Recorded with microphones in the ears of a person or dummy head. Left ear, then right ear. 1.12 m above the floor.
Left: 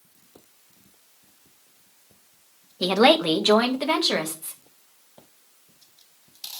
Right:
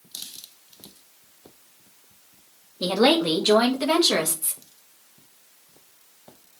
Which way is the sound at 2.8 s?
60° left (ahead or behind).